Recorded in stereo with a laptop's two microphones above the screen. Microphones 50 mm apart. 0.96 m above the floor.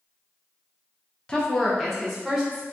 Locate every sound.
1.3 s a woman speaking: 20° left (ahead or behind), 0.5 m; by 2.6 s 10° right (ahead or behind), 1.2 m